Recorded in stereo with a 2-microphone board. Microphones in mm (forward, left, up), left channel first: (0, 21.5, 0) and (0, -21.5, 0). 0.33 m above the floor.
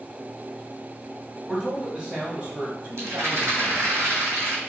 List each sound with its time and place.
1.5 s a man speaking: 10° right (ahead or behind), 1.4 m; by 3.9 s 55° right (ahead or behind), 1.5 m
3.0 s a rattle: 70° right (ahead or behind), 2.5 m